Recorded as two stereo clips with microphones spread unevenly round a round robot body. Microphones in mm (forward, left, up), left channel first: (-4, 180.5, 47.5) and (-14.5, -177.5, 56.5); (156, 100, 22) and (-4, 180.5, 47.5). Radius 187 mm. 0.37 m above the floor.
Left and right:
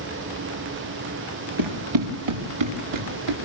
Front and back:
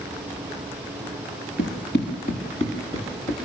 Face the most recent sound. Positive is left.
turn(degrees=-115)